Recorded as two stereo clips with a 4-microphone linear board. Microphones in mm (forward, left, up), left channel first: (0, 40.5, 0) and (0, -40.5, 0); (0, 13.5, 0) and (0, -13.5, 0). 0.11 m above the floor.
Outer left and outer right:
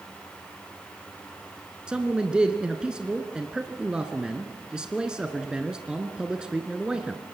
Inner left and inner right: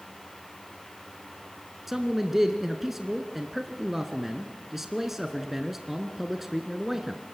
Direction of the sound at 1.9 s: 10° right (ahead or behind).